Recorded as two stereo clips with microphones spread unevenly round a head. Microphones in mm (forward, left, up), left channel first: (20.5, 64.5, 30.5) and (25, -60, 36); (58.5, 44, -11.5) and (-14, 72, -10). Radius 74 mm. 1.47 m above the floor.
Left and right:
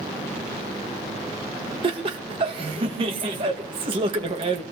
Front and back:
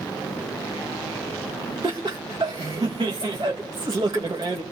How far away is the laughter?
About 2.0 m.